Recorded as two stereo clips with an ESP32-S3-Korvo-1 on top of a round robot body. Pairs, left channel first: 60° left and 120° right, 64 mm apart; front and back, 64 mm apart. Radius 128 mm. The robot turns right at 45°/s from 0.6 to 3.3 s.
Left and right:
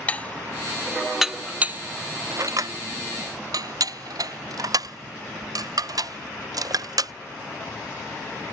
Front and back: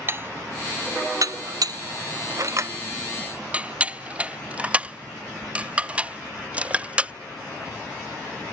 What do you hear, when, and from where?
0.1 s dishes clattering: 130° left; by 7.1 s 110° right